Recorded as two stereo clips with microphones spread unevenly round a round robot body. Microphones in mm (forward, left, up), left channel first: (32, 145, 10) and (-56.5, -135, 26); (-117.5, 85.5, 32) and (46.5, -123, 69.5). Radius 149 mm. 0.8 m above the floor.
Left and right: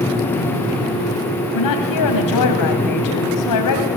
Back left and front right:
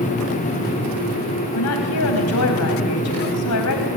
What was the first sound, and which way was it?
A woman speaking, 95° left.